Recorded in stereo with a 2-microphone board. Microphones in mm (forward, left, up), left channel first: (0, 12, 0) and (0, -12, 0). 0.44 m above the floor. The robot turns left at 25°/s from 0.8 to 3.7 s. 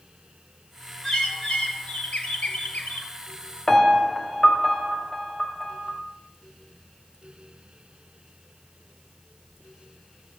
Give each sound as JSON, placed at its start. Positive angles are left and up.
{"t": 1.0, "sound": "a bird", "azimuth_deg": 150, "distance_m": 2.0}
{"t": 3.7, "sound": "a piano", "side_deg": 20, "distance_m": 2.5}